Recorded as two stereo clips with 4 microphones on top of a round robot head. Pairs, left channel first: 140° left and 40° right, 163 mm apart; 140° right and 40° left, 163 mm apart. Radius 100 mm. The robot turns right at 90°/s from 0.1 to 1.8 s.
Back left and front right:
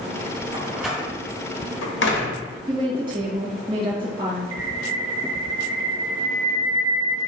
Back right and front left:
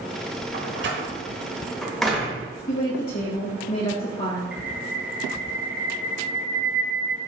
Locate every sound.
0.5 s a door slam: 20° left, 1.2 m; by 2.5 s 130° left, 1.2 m
2.7 s a woman speaking: 105° right, 3 m
4.5 s a bird: 45° right, 0.7 m